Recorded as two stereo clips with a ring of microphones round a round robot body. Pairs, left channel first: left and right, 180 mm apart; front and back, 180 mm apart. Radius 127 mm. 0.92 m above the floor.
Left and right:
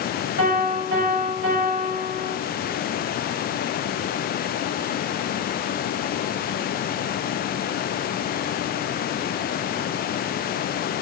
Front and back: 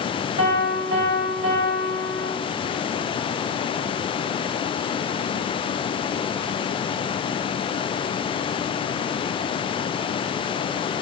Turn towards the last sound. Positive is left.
turn(degrees=-135)